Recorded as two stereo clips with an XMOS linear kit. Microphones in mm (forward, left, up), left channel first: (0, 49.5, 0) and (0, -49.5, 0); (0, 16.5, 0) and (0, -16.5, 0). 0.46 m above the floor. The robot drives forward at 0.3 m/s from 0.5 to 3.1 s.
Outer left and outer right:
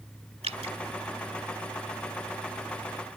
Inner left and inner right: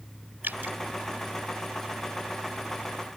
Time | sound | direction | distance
0.4 | dripping | 80° right | ?